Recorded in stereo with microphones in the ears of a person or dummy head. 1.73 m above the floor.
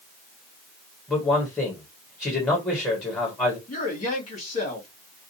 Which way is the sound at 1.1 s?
15° left (ahead or behind).